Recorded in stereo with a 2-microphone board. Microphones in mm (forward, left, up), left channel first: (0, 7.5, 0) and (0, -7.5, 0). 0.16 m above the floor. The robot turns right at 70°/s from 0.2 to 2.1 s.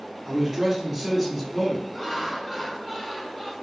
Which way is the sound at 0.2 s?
20° right (ahead or behind).